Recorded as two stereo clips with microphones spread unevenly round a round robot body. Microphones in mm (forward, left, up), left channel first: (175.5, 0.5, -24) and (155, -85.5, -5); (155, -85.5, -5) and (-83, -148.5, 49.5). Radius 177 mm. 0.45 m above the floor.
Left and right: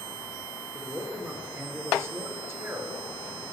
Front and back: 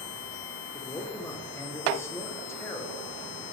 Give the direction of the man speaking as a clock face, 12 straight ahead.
1 o'clock.